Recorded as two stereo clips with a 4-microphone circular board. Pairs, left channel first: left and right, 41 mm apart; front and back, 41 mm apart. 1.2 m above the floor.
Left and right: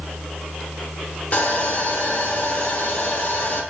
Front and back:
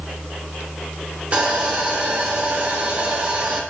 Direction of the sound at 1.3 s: 130° left.